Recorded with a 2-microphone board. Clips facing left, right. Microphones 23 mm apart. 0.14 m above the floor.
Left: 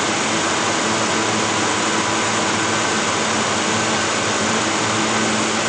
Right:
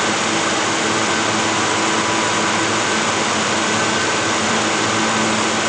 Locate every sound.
Only background noise.